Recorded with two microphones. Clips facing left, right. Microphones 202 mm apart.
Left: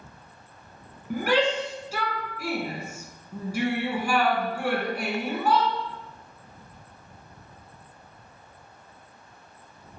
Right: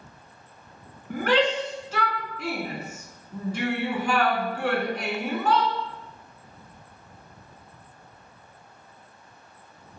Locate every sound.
1.1 s a shout: 10° left (ahead or behind), 2.5 m